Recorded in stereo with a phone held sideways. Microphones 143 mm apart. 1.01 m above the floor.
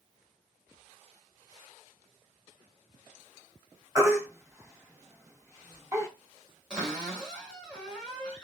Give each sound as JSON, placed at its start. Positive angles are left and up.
{"t": 4.0, "sound": "a baby crying", "side_deg": -20, "distance_m": 1.8}
{"t": 6.7, "sound": "a cupboard door", "side_deg": -5, "distance_m": 2.5}